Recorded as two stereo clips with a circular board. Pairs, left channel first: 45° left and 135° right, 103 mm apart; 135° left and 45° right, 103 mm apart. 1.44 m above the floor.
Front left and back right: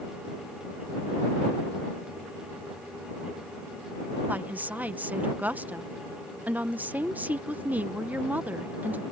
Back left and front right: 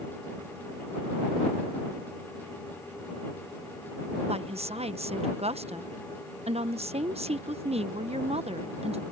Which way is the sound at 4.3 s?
60° right.